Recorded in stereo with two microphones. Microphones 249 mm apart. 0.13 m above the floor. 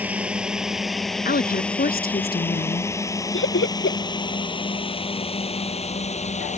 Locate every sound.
0.0 s a drone: 5° right (ahead or behind); by 6.6 s 30° left (ahead or behind)
1.2 s a woman speaking: 40° left (ahead or behind)
3.3 s laughter: 50° left (ahead or behind)